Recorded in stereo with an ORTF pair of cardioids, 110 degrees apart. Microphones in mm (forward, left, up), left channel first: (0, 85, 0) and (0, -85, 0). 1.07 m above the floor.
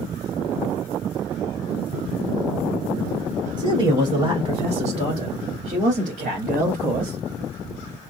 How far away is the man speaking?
About 3 m.